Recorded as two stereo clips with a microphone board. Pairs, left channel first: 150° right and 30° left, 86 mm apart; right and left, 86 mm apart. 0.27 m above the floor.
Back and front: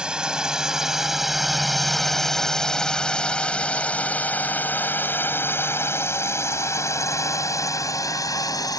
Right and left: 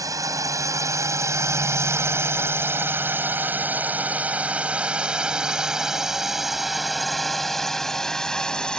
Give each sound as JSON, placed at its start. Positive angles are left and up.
{"t": 0.0, "sound": "a drone", "azimuth_deg": 105}